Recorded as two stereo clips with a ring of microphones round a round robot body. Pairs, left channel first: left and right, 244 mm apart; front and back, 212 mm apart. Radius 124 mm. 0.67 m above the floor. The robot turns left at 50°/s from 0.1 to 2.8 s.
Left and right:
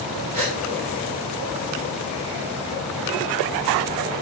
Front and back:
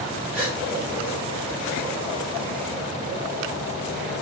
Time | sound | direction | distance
0.3 | a gasp | 105° right | 6.5 m